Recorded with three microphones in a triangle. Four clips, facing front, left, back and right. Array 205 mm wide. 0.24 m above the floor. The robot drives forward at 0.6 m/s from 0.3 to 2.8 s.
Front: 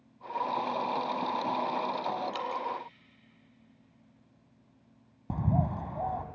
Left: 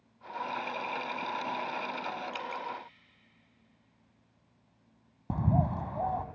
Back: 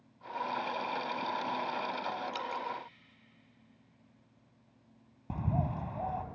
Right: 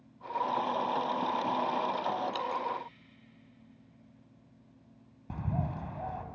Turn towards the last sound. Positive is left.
turn(degrees=65)